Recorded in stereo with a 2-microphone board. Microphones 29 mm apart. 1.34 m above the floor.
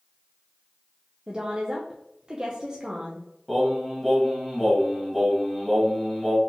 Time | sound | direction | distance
1.3 | a woman speaking | 25° right (ahead or behind) | 0.6 m
3.5 | singing | 5° right (ahead or behind) | 1.2 m